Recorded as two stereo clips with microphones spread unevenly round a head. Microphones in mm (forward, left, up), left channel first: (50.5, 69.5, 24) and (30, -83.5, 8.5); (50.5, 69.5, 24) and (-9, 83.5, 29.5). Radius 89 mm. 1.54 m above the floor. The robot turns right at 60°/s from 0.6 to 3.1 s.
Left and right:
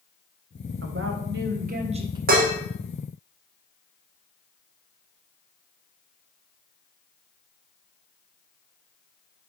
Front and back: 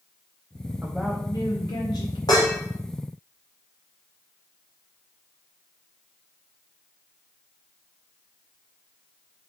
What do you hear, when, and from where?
0.8 s a woman speaking: 115° right, 1.2 m; by 2.2 s 35° right, 1.2 m
2.3 s dishes clattering: 70° right, 1.2 m; by 2.5 s 55° right, 1.2 m